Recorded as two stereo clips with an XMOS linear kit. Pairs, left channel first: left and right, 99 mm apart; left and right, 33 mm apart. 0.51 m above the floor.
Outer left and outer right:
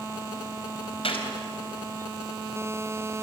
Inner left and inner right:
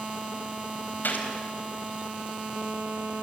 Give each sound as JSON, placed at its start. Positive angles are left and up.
{"t": 1.0, "sound": "a gunshot", "side_deg": 70, "distance_m": 3.5}